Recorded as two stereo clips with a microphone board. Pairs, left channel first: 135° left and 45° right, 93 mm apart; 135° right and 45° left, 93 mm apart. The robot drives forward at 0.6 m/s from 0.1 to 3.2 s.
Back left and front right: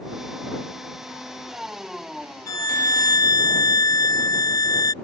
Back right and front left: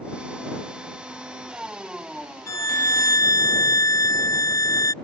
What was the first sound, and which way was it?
A violin, straight behind.